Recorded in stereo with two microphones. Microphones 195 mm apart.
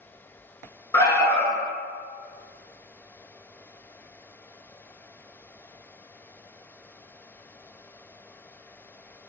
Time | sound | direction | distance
0.9 | an alarm | 15° left (ahead or behind) | 1.1 m